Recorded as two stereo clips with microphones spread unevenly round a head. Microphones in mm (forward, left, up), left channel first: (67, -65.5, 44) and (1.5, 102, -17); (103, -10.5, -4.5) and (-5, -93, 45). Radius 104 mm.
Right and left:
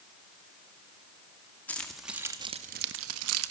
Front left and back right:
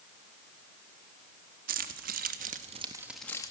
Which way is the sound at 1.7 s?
150° right.